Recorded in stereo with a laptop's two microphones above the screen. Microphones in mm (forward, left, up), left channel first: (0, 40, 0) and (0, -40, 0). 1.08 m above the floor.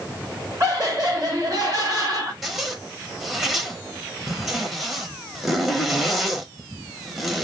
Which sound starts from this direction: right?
Laughter, at 0.6 s.